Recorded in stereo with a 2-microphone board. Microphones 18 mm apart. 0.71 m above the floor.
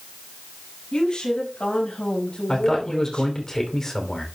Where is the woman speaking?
55° left (ahead or behind), 5.5 m; by 3.3 s 80° left, 5 m.